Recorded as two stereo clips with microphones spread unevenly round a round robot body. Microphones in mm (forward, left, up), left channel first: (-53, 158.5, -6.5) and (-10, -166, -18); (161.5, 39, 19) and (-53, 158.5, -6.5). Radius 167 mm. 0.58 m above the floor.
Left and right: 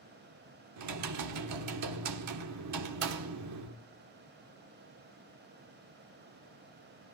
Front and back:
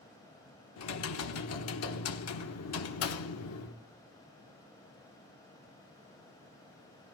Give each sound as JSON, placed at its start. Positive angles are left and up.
{"t": 0.8, "sound": "typing on a keyboard", "azimuth_deg": -55, "distance_m": 1.2}